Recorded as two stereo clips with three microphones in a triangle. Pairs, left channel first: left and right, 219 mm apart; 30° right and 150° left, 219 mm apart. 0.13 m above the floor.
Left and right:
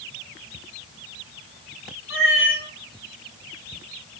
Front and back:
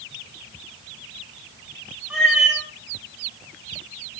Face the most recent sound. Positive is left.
turn(degrees=65)